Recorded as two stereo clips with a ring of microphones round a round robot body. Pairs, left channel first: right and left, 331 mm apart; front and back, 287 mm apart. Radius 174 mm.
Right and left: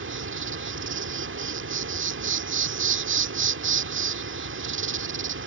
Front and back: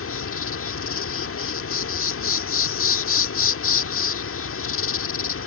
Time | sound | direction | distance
0.0 | an insect | 40° left | ?